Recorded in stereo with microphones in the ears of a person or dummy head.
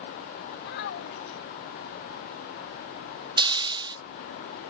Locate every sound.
0.6 s a child speaking: 60° left (ahead or behind)
3.4 s a hiss: 25° right (ahead or behind)